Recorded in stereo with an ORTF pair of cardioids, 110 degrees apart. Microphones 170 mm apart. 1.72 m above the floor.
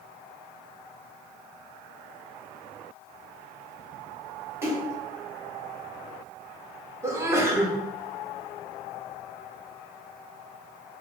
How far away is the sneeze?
About 0.7 m.